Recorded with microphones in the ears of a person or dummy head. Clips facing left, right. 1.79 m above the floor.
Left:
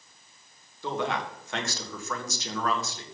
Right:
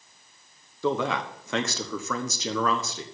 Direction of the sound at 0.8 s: 75° right (ahead or behind).